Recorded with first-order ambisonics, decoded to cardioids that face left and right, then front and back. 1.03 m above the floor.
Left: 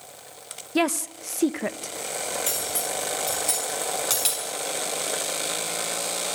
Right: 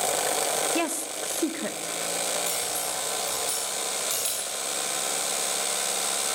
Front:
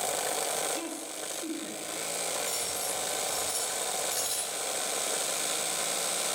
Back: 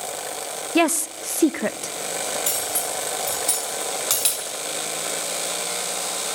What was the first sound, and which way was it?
A woman speaking, 165° left.